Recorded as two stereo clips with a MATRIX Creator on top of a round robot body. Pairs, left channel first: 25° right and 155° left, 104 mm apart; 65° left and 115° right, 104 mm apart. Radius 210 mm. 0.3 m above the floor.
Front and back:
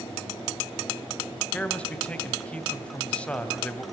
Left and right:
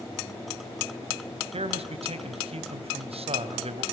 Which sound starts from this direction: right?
A man speaking, at 1.5 s.